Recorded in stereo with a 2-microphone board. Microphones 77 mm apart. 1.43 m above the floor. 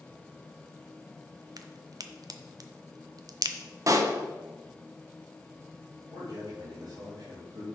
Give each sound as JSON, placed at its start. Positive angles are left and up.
{"t": 1.6, "sound": "a crack", "side_deg": -55, "distance_m": 0.6}
{"t": 3.9, "sound": "a pop", "side_deg": -45, "distance_m": 0.9}
{"t": 6.1, "sound": "a man speaking", "side_deg": -60, "distance_m": 3.0}